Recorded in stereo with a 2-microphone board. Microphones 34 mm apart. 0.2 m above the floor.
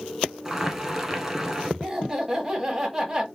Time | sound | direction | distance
0.5 | boiling | 10° right (ahead or behind) | 1.2 m
1.8 | laughter | 15° right (ahead or behind) | 1.2 m